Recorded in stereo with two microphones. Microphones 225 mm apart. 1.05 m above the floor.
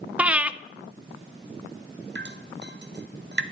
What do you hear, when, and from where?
0.2 s breathing: 5° right (ahead or behind), 0.5 m
2.1 s dripping: 55° right (ahead or behind), 0.8 m